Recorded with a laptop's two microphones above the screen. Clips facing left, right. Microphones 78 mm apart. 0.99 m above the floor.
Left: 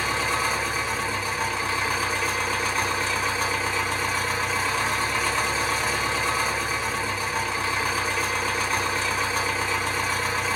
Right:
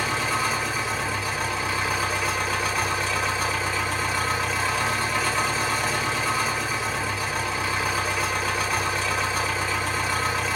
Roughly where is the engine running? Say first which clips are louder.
Even; centre.